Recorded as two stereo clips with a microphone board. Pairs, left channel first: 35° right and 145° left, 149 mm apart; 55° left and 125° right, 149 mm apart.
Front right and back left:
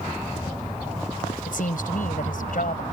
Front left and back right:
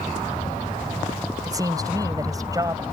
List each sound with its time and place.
1.5 s a woman speaking: 60° right